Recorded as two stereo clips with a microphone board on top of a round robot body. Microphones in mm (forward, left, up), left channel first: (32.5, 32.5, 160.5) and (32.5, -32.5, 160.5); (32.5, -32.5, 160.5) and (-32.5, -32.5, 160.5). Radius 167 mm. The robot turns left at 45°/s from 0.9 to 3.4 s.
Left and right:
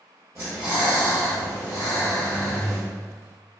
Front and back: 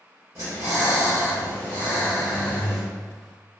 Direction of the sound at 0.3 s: 140° right.